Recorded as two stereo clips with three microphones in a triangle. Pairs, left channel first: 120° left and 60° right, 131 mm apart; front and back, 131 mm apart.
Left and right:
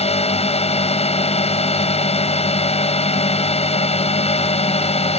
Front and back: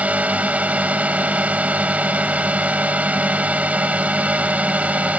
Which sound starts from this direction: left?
A drone, at 0.0 s.